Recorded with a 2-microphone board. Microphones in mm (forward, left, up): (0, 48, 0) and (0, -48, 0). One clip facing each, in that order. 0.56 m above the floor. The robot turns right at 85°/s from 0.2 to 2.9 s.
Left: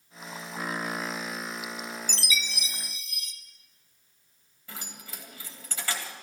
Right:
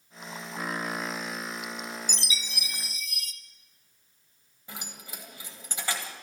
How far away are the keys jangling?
About 2.0 m.